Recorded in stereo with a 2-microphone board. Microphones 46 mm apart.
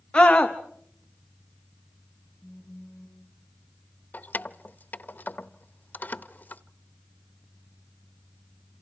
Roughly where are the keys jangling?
Left.